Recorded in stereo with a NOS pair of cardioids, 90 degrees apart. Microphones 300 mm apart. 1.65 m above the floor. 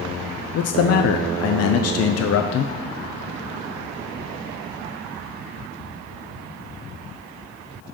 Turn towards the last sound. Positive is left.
turn(degrees=60)